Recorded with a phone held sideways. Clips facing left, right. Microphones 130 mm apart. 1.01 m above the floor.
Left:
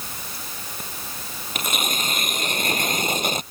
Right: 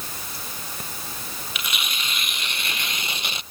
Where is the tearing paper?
45° left (ahead or behind).